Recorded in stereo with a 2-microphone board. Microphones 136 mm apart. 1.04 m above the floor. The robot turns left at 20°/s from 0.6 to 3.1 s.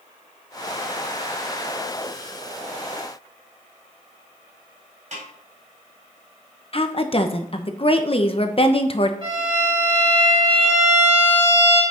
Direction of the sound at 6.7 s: 40° left (ahead or behind).